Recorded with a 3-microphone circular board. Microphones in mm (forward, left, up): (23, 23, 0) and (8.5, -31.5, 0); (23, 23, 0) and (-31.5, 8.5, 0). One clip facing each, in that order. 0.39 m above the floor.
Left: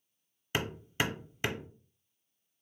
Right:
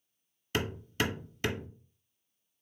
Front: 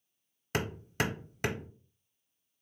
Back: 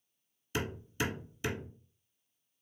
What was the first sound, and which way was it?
Hammering, 5° left.